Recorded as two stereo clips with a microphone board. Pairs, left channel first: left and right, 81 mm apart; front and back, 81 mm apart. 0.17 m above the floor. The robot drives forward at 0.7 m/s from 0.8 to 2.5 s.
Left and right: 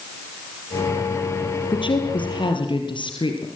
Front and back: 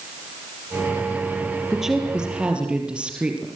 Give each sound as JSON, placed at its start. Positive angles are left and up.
{"t": 1.7, "sound": "a woman speaking", "azimuth_deg": 90, "distance_m": 3.5}